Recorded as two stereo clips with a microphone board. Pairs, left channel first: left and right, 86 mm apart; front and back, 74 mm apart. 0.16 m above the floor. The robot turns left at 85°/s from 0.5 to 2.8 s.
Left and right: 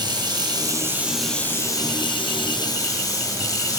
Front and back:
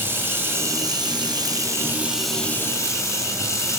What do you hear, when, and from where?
0.0 s running water: 120° right, 1.8 m; by 3.8 s 45° left, 1.8 m